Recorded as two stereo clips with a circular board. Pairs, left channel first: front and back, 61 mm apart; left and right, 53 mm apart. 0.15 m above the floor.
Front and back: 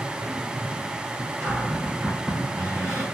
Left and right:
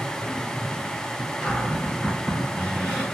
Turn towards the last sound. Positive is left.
turn(degrees=150)